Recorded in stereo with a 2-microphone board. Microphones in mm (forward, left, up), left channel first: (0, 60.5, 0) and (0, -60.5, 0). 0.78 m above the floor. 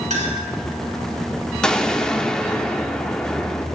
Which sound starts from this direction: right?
A clink, at 0.1 s.